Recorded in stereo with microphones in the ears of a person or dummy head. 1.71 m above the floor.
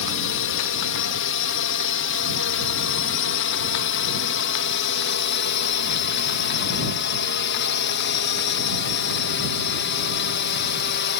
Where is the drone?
60° left (ahead or behind); by 11.2 s 50° left (ahead or behind).